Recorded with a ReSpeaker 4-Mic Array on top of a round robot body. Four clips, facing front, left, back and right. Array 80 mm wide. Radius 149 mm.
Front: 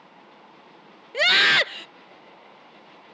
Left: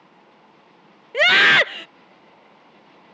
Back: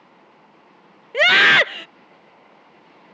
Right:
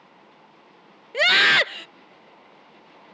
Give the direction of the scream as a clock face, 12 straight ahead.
7 o'clock.